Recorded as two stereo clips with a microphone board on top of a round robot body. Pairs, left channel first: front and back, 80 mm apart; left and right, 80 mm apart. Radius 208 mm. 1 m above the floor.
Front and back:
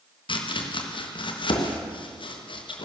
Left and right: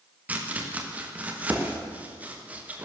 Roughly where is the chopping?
Ahead.